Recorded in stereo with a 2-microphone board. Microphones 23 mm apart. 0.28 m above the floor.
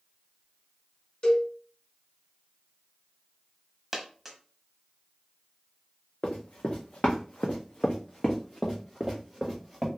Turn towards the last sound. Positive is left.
turn(degrees=5)  # may be behind; listen again after turning